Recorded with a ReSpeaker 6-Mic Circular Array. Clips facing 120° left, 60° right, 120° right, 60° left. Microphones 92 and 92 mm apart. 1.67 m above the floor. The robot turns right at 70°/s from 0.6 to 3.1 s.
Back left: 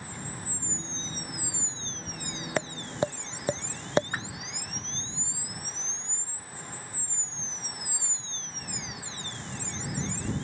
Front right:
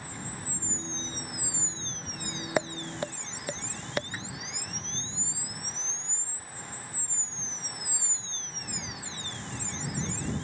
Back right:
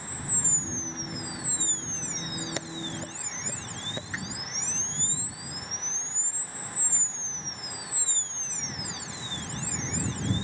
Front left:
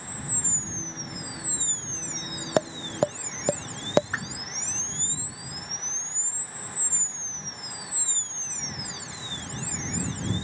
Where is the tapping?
20° left; by 4.0 s 60° left.